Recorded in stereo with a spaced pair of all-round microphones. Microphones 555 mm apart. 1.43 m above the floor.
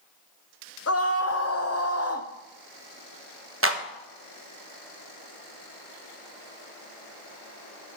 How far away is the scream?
About 0.5 m.